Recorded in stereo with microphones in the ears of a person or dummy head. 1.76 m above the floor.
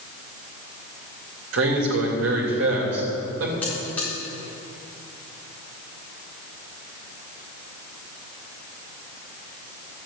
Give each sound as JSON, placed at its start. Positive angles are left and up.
{"t": 1.5, "sound": "a man speaking", "side_deg": -80, "distance_m": 3.0}
{"t": 3.6, "sound": "a buzzer", "side_deg": 10, "distance_m": 5.0}